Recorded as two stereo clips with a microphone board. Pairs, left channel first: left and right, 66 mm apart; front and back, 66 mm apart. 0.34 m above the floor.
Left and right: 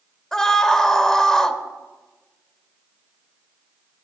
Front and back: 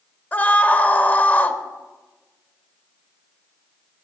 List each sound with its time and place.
0.3 s a scream: 20° left, 0.9 m